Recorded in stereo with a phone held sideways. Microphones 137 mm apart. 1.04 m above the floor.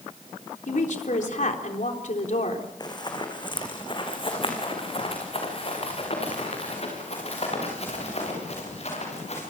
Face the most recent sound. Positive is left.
turn(degrees=55)  # may be behind; listen again after turning